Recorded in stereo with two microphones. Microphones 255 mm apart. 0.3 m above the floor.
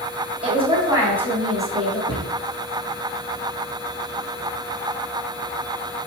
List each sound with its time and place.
0.4 s a woman speaking: 25° right (ahead or behind), 2.5 m; by 2.0 s 5° left (ahead or behind), 3.5 m
2.1 s a cupboard door: 45° left (ahead or behind), 2.5 m